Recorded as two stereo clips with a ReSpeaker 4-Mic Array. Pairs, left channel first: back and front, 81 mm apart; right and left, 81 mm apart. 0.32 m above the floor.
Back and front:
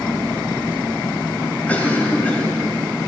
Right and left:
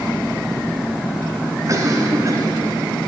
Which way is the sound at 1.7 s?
115° left.